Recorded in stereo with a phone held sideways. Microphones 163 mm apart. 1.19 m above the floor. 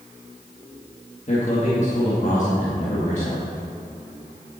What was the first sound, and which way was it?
A man speaking, 50° left (ahead or behind).